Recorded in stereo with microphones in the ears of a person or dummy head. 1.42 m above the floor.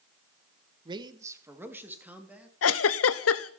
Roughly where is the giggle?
Left.